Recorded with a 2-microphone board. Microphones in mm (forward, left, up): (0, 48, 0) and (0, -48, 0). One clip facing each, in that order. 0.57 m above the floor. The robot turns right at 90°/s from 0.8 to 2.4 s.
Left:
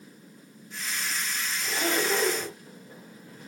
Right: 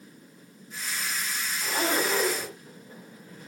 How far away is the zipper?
About 5.5 m.